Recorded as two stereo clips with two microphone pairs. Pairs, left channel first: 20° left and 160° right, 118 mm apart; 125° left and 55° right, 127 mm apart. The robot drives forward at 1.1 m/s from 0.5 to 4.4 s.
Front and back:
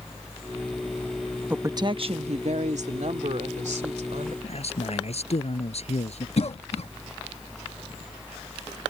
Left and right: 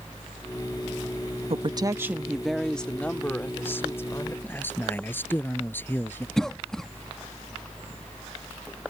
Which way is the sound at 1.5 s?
85° right.